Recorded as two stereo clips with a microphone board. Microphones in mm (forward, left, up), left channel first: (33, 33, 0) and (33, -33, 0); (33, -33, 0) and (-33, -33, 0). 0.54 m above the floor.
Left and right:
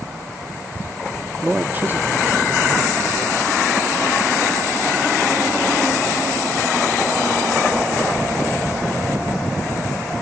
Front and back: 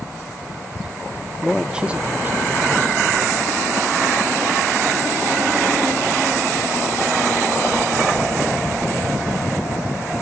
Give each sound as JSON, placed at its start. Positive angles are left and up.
{"t": 1.4, "sound": "a man speaking", "azimuth_deg": -80, "distance_m": 0.8}